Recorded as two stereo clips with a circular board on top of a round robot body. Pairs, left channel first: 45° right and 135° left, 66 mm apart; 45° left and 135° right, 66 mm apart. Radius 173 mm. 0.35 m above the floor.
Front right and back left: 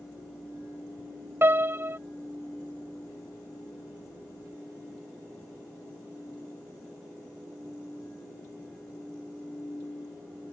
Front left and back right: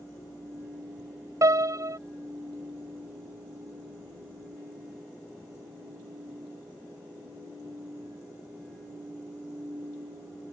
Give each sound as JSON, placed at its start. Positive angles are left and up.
{"t": 1.4, "sound": "a piano", "azimuth_deg": -170}